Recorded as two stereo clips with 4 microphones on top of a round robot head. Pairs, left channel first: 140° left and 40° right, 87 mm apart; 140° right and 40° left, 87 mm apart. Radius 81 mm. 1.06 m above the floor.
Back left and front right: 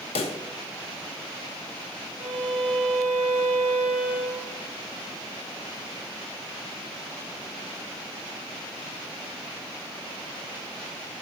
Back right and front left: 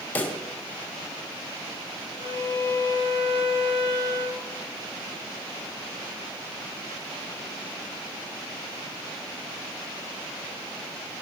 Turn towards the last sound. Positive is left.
turn(degrees=35)